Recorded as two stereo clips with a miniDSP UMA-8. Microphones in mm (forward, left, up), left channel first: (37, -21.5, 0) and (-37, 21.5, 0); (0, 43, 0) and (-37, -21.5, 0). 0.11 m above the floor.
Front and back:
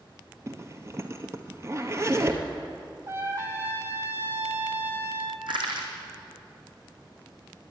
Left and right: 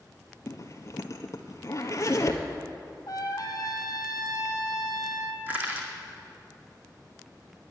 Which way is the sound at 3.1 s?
95° left.